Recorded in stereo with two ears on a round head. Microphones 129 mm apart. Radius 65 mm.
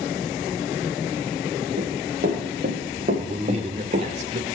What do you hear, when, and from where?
1.8 s running footsteps: 60° right (ahead or behind), 3.5 m; by 4.1 s 45° right (ahead or behind), 2.5 m
3.2 s a man speaking: 50° right (ahead or behind), 1.7 m